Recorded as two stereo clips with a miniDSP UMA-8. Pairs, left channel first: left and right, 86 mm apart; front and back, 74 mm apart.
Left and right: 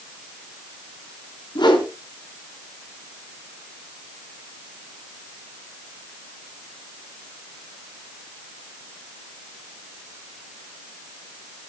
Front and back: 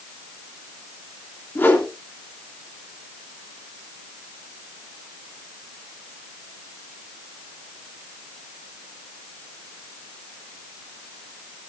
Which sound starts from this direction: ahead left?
A whoosh, at 1.6 s.